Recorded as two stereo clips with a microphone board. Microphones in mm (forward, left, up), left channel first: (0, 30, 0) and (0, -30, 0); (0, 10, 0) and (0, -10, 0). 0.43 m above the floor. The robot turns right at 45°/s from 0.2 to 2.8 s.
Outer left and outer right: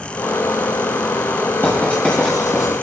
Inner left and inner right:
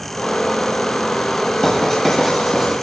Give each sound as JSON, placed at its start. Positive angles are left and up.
{"t": 1.6, "sound": "writing", "side_deg": 35, "distance_m": 9.0}